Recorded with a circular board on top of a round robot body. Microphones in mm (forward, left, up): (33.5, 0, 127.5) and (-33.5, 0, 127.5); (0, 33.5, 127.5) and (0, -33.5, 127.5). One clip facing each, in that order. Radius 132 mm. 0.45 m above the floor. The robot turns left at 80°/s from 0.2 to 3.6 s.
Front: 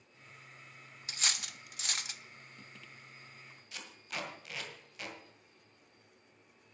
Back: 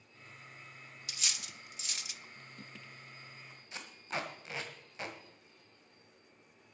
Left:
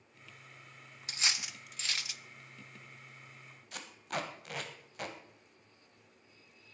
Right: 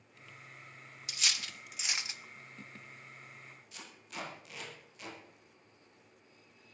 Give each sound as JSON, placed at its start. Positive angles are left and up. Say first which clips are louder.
{"t": 1.1, "sound": "cutlery clinking", "louder": "front 4 dB, left 1 dB", "azimuth_deg": 45, "distance_m": 0.6}
{"t": 3.7, "sound": "tape being pulled", "louder": "back 4 dB, left 8 dB", "azimuth_deg": 120, "distance_m": 1.8}